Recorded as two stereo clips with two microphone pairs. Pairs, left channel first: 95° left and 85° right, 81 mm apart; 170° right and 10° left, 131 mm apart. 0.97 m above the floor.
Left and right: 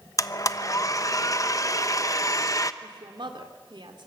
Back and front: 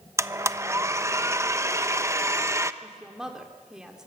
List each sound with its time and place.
0.2 s a blender: 70° left, 0.9 m
2.8 s a woman speaking: 75° right, 3.5 m